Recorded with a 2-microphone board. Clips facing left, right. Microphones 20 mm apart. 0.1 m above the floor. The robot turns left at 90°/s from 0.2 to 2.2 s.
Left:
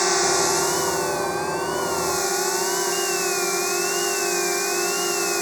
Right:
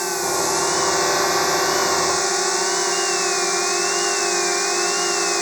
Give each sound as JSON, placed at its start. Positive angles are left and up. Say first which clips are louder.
{"t": 0.0, "sound": "a drone", "louder": "left 2 dB", "azimuth_deg": 25}